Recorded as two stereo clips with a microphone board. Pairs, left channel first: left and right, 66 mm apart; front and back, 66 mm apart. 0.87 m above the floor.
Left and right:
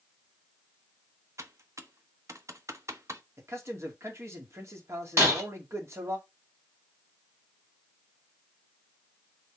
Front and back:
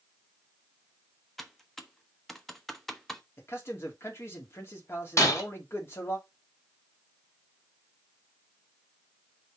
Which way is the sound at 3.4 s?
50° right.